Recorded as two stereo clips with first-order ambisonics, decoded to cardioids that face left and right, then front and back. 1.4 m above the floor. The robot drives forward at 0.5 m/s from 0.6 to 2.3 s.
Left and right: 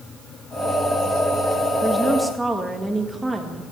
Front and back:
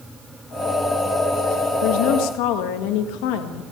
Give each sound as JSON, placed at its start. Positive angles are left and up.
{"t": 1.8, "sound": "a woman speaking", "azimuth_deg": -5, "distance_m": 1.9}